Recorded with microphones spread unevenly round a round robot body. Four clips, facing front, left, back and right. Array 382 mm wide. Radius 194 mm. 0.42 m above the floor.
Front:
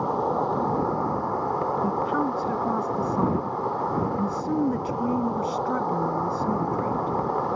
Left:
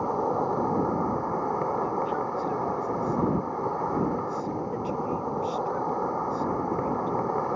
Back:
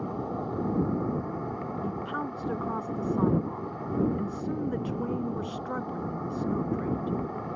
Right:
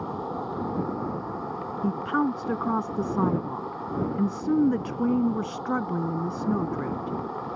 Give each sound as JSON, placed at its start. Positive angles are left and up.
{"t": 0.0, "sound": "an insect", "azimuth_deg": 30}
{"t": 1.8, "sound": "a woman speaking", "azimuth_deg": -75}